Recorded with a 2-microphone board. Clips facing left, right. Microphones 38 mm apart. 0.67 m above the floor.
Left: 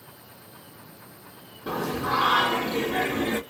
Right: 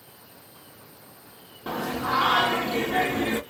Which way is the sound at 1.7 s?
45° right (ahead or behind).